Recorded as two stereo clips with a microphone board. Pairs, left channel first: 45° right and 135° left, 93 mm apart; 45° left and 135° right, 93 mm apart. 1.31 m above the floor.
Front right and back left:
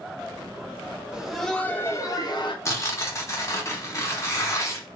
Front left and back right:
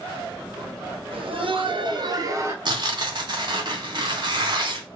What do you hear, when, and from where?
1.1 s laughter: 145° right, 0.7 m; by 2.5 s 75° right, 0.7 m
2.6 s tearing paper: 100° right, 0.6 m